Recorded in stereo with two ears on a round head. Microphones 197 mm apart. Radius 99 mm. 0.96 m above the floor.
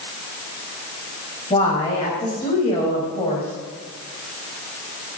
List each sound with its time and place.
1.5 s a woman speaking: 25° left (ahead or behind), 5.5 m